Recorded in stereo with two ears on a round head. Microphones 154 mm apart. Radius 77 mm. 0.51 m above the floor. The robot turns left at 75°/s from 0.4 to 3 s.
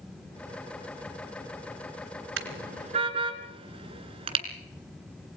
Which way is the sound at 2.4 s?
80° right.